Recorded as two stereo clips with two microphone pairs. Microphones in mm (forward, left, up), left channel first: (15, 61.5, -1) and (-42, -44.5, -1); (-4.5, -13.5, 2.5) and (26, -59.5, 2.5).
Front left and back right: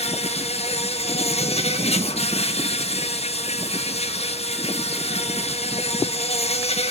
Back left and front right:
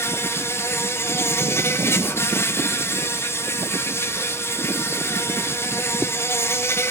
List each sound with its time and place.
0.0 s an insect: 85° left, 1.5 m